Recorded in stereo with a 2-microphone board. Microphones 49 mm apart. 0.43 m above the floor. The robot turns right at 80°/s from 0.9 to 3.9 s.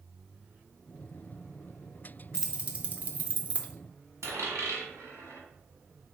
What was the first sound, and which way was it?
Keys jangling, 15° right (ahead or behind).